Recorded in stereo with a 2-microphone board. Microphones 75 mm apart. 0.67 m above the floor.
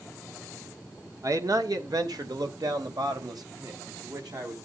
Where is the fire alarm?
I don't hear a fire alarm.